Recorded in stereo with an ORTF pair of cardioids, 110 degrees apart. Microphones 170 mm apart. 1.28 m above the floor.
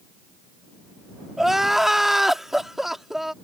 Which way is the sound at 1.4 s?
Straight ahead.